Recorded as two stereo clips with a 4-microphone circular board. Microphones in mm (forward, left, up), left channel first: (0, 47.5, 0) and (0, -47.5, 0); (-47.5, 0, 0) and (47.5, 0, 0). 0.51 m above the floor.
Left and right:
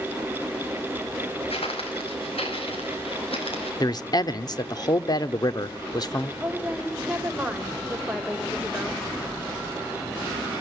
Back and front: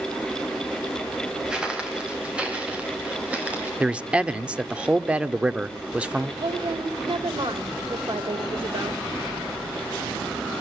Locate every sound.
1.5 s footsteps: 80° left, 5 m; by 3.7 s 75° left, 6.5 m
3.8 s a man speaking: 75° left, 1.0 m
6.4 s a woman speaking: 10° right, 2.5 m